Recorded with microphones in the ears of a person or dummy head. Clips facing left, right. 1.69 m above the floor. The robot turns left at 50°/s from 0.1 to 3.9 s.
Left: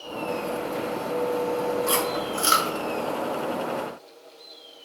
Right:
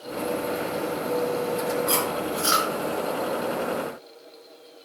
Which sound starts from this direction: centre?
Chewing, at 1.9 s.